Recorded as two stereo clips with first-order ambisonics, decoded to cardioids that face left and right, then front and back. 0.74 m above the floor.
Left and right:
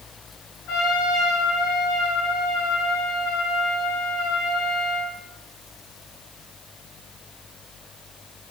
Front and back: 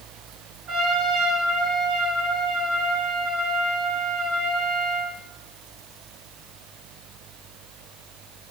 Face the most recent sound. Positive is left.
turn(degrees=125)